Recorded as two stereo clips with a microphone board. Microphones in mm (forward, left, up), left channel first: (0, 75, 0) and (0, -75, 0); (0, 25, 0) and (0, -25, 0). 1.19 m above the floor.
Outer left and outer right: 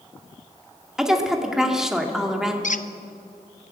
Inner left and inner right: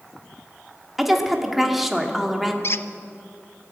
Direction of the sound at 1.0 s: 5° right (ahead or behind).